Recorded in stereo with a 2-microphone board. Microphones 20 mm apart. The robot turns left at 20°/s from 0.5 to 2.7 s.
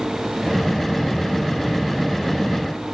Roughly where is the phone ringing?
No phone ringing in this recording.